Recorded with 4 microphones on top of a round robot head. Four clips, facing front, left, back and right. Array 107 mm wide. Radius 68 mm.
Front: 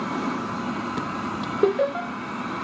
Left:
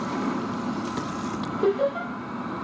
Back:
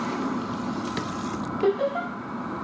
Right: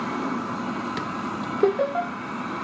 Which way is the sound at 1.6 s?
35° right.